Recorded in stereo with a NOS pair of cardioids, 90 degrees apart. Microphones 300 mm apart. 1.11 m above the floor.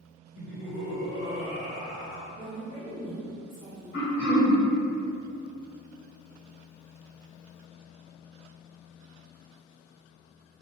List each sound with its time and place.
0.3 s laughter: 50° left, 1.8 m
2.3 s a woman speaking: 25° left, 1.9 m
3.9 s throat clearing: 55° left, 1.4 m